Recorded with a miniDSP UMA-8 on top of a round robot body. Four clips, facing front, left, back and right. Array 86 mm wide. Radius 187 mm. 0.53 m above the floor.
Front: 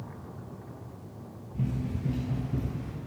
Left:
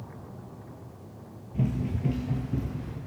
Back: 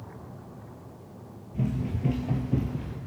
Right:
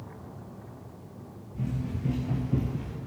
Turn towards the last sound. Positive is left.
turn(degrees=-135)